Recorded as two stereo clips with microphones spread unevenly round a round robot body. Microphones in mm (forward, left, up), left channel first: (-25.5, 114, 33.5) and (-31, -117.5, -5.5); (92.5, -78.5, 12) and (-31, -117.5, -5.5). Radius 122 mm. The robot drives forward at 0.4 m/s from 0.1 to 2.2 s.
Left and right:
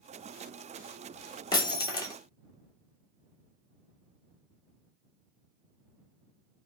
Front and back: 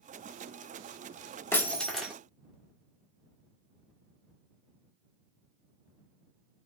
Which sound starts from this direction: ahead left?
Breaking glass, at 1.5 s.